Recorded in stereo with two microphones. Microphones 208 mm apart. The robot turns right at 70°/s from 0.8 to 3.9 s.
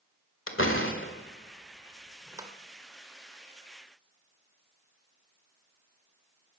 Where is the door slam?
75° left (ahead or behind), 1.7 m; by 2.5 s 25° right (ahead or behind), 1.7 m.